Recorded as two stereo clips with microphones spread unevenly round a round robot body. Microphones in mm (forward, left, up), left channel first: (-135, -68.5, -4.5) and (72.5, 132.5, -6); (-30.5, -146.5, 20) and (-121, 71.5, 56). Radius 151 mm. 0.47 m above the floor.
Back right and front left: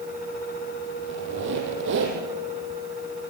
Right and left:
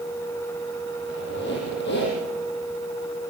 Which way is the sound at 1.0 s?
10° right.